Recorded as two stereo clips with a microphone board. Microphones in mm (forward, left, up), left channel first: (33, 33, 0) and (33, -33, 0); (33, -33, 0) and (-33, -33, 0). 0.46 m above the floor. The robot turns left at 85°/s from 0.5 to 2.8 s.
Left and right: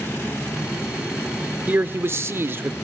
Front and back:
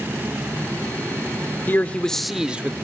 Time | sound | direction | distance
1.7 | a man speaking | 40° right | 1.1 m